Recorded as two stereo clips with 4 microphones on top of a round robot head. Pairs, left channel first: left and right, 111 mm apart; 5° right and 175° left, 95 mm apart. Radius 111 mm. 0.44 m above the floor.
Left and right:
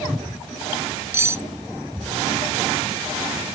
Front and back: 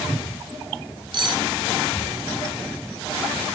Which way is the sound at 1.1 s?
155° right.